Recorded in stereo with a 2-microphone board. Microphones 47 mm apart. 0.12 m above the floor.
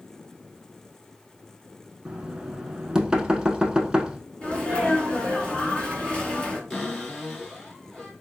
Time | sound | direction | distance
2.0 | knocking | 15° right (ahead or behind) | 0.7 m
4.4 | a sneeze | 20° left (ahead or behind) | 1.5 m
6.7 | a cupboard door | 10° left (ahead or behind) | 2 m